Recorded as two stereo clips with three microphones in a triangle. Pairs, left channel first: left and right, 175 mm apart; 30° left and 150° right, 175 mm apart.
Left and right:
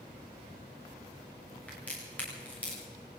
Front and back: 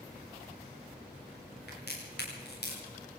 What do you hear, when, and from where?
1.7 s a crack: 10° left, 9 m